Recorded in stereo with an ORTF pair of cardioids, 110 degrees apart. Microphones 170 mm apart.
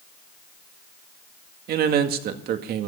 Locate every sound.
1.7 s a man speaking: 65° right, 2.0 m